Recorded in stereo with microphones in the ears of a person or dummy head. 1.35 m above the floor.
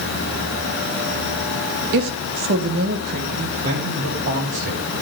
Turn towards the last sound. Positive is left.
turn(degrees=-55)  # may be behind; listen again after turning